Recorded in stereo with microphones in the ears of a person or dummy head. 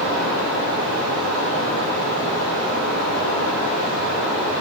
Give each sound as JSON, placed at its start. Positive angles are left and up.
{"t": 0.0, "sound": "running water", "side_deg": -70, "distance_m": 3.0}